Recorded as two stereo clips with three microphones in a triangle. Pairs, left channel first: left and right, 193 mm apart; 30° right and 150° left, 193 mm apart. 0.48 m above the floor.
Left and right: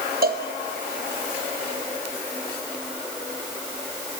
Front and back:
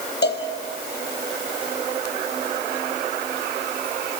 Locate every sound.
0.2 s a cowbell: 55° right, 2.5 m